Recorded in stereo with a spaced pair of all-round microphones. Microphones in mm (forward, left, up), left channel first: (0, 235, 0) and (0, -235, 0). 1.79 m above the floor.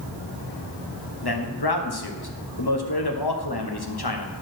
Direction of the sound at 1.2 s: 55° left (ahead or behind).